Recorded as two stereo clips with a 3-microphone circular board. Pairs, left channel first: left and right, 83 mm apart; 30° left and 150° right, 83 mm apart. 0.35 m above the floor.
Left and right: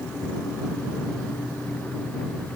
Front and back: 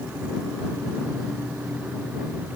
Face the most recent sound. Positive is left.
No sound to turn to.